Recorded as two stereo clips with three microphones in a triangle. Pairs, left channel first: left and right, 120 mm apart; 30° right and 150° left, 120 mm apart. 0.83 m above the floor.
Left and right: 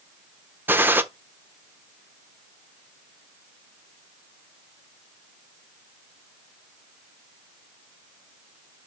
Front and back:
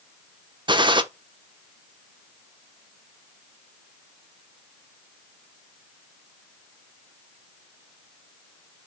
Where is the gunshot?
160° right, 0.8 m.